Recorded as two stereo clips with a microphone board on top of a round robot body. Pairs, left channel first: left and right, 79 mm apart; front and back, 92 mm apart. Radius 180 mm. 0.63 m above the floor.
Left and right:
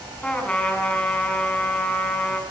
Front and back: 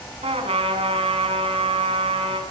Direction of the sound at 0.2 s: 170° left.